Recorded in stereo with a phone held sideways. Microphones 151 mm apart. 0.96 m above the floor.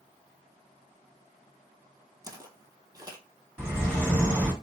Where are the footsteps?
25° right (ahead or behind), 1.1 m.